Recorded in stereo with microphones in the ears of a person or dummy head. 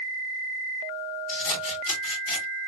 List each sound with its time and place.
1.3 s scissors: 65° left (ahead or behind), 2.5 m